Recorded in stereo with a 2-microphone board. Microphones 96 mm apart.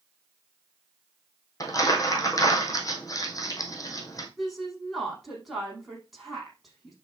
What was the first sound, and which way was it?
Crumpling, 40° left (ahead or behind).